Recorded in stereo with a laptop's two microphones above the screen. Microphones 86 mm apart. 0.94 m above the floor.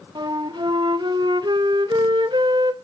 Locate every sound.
0.1 s a flute: 60° right (ahead or behind), 1.3 m